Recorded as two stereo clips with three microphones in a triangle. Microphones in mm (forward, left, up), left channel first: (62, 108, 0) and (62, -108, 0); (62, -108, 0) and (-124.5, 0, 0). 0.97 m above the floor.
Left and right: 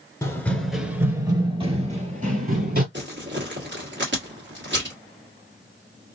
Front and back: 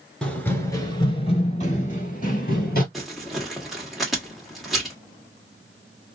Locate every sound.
0.2 s running footsteps: 50° left, 0.9 m; by 2.8 s 60° right, 1.5 m
2.9 s crumpling: 120° right, 1.3 m